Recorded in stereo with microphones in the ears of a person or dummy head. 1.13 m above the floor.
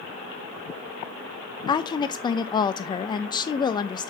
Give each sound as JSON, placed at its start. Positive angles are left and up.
{"t": 1.7, "sound": "a woman speaking", "side_deg": 25, "distance_m": 0.5}